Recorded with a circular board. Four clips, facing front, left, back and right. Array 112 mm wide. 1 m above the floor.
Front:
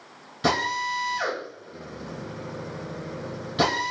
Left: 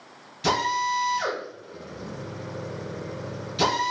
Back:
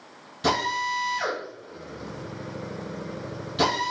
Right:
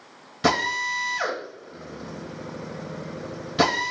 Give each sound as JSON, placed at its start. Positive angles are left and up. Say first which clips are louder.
{"t": 0.4, "sound": "a drill", "louder": "even, even", "azimuth_deg": -75, "distance_m": 3.5}